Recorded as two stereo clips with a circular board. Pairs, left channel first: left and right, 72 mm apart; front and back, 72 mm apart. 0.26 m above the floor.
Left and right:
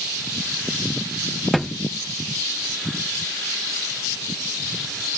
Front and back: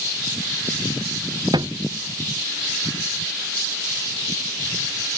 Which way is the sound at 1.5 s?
Straight behind.